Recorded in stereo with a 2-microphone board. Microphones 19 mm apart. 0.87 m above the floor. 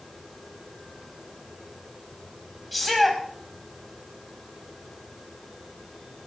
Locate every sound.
2.7 s a shout: centre (ahead or behind), 6 m